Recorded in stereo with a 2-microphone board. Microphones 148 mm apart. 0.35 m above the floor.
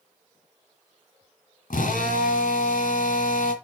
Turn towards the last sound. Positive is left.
turn(degrees=75)  # may be behind; listen again after turning